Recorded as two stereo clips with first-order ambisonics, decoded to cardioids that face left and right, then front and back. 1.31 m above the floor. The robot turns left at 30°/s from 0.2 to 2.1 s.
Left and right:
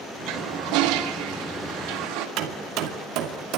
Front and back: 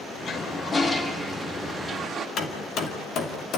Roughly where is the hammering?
Ahead right.